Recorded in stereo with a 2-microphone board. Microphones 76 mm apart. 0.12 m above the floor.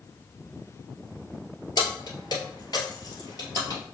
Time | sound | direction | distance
1.8 | keys jangling | 60° left (ahead or behind) | 1.6 m